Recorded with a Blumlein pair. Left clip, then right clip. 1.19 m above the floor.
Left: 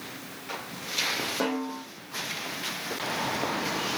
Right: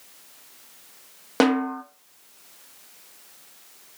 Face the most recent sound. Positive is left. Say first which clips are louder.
# right 8 dB
turn(degrees=-35)